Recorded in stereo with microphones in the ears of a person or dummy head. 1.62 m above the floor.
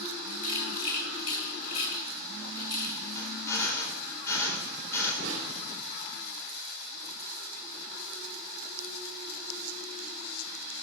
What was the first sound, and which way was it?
A rattle, 40° left (ahead or behind).